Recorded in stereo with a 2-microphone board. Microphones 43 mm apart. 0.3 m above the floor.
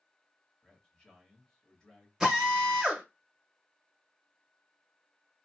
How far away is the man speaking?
About 1.1 m.